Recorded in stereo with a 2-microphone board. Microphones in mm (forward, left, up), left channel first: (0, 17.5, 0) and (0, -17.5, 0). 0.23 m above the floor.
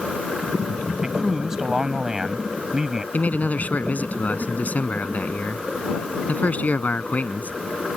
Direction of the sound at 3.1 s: 50° left (ahead or behind).